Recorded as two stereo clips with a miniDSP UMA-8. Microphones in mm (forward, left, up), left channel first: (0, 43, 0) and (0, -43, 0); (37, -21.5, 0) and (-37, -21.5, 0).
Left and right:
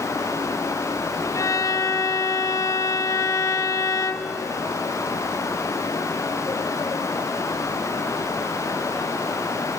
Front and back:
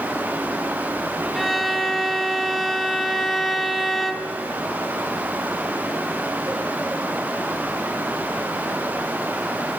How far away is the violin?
About 0.9 m.